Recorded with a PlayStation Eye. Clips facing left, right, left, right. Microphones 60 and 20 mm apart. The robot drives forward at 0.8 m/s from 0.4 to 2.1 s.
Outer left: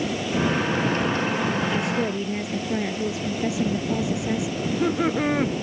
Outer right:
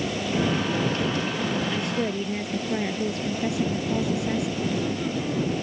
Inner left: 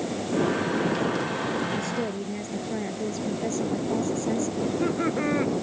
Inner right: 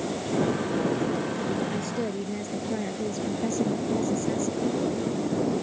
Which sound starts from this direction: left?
Laughter, at 4.6 s.